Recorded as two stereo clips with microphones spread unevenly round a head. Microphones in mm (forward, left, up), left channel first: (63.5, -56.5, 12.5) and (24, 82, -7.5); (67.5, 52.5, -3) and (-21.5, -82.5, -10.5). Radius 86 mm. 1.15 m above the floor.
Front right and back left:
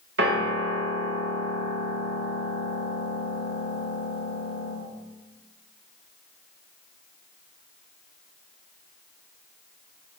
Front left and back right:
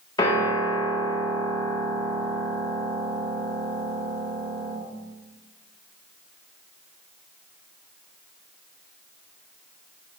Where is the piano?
125° left, 1.3 m.